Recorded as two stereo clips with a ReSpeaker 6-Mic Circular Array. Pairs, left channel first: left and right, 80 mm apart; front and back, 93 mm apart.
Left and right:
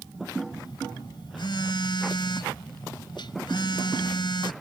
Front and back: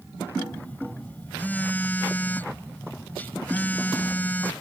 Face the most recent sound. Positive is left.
turn(degrees=70)